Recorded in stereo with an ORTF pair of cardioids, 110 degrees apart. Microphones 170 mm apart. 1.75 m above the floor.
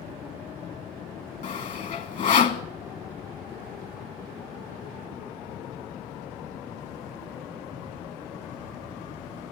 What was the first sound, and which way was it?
Sawing, 50° left.